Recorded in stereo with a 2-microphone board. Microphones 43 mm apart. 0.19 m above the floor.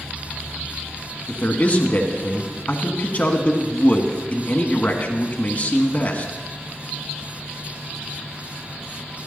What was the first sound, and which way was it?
A man speaking, 35° left (ahead or behind).